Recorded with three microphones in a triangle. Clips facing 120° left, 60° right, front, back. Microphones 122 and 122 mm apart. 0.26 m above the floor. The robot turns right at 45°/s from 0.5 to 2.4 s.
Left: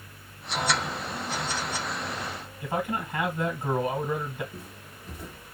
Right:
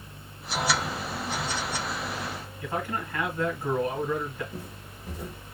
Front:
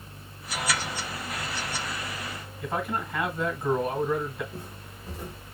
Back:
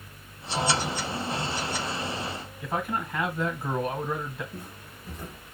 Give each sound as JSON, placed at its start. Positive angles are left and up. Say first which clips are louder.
{"t": 2.6, "sound": "a man speaking", "louder": "left 2 dB, even", "azimuth_deg": 95, "distance_m": 1.4}
{"t": 4.5, "sound": "footsteps", "louder": "right 3 dB, front 1 dB", "azimuth_deg": -65, "distance_m": 1.7}